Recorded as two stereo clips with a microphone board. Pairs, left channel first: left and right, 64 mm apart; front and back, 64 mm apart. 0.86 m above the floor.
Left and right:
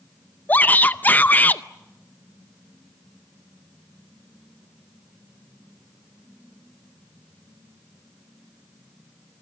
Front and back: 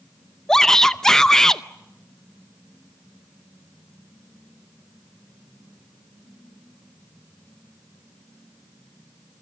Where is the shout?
75° left, 0.6 m.